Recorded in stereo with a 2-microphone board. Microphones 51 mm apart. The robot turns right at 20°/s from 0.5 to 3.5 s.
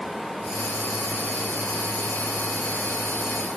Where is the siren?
No siren in this recording.